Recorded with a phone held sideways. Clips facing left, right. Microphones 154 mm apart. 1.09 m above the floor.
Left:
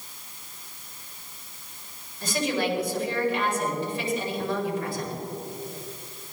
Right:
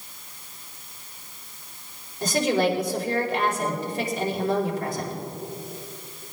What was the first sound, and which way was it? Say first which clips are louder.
A woman speaking: right 5 dB; 40° right (ahead or behind).